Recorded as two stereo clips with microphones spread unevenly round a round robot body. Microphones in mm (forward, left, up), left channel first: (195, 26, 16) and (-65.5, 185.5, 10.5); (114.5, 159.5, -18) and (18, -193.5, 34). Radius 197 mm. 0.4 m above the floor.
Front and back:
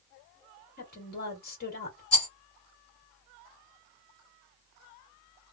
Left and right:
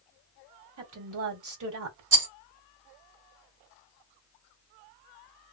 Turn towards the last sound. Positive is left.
turn(degrees=-75)